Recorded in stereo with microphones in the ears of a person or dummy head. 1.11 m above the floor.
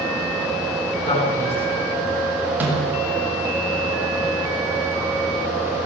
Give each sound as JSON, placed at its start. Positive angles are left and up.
{"t": 1.1, "sound": "a man speaking", "side_deg": 35, "distance_m": 9.0}
{"t": 2.6, "sound": "a snare drum", "side_deg": -10, "distance_m": 6.5}